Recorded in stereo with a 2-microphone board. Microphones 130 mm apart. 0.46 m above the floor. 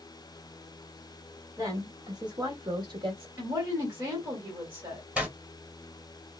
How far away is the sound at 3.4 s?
About 1.5 m.